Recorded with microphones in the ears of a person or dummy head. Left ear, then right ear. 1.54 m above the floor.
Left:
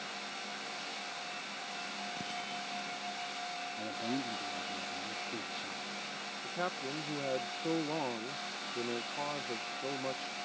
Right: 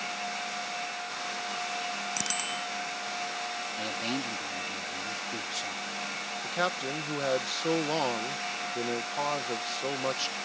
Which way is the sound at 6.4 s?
70° right (ahead or behind).